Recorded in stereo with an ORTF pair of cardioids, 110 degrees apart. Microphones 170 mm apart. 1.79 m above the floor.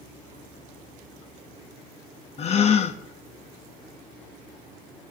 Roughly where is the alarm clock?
No alarm clock in this recording.